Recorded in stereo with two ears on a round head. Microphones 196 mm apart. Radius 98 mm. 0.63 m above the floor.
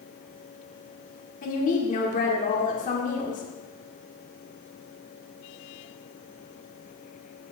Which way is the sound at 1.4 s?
35° left (ahead or behind).